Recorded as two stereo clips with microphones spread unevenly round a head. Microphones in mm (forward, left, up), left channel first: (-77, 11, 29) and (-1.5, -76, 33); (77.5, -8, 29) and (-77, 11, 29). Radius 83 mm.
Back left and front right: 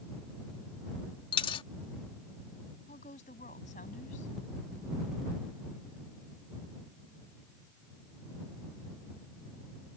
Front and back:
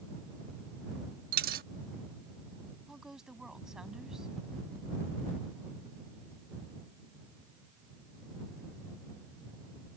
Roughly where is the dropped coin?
Behind.